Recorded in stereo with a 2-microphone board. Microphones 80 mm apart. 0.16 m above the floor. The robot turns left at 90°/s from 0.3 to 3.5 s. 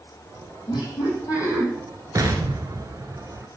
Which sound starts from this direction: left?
Laughter, at 0.7 s.